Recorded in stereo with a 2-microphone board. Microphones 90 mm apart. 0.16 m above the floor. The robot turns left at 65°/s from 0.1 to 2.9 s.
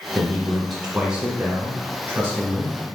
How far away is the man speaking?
About 1.5 m.